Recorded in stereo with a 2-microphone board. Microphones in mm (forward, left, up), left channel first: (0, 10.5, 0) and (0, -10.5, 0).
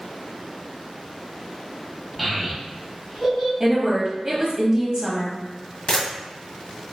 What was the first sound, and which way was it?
A child speaking, 5° right (ahead or behind).